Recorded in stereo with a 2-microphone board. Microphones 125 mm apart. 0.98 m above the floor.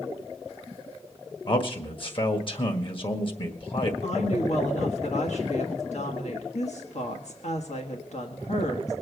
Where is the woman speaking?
65° left (ahead or behind), 1.3 m.